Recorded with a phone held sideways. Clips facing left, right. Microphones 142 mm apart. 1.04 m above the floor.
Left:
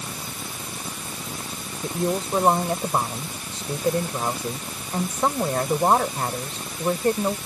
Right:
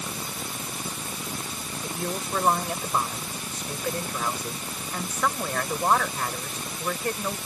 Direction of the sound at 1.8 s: 30° left (ahead or behind).